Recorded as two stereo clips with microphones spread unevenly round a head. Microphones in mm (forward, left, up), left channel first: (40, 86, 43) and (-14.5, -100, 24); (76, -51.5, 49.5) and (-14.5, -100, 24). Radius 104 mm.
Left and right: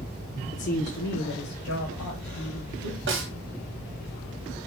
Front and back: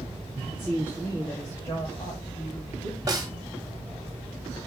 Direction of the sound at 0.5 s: 130° left.